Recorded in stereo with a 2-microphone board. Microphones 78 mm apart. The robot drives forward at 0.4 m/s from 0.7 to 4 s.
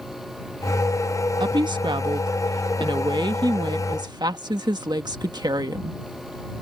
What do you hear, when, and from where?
1.4 s a woman speaking: 70° right (ahead or behind); by 6.0 s 60° right (ahead or behind)